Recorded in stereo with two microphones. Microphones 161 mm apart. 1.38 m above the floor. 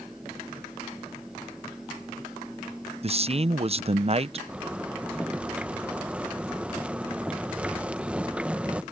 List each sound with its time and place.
3.0 s a man speaking: 40° right (ahead or behind)
4.5 s a zipper: 10° right (ahead or behind)